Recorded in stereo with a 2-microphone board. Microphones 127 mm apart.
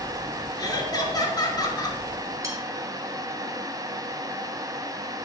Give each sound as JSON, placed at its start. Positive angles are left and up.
{"t": 0.6, "sound": "laughter", "side_deg": 30, "distance_m": 2.5}
{"t": 2.4, "sound": "cutlery clinking", "side_deg": -25, "distance_m": 2.0}